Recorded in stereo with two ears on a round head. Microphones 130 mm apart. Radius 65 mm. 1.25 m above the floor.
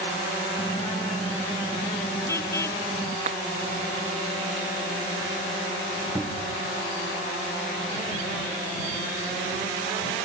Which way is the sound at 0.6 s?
20° left (ahead or behind).